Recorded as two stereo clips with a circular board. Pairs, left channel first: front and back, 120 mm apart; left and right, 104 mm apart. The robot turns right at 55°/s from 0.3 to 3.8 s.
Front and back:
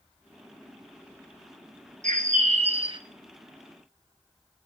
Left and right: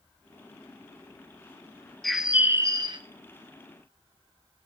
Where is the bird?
175° left, 0.9 m; by 3.0 s 130° right, 0.9 m.